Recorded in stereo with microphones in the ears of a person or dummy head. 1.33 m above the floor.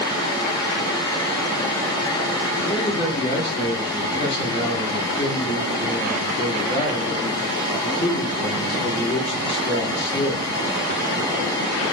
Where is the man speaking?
25° left (ahead or behind), 0.6 m.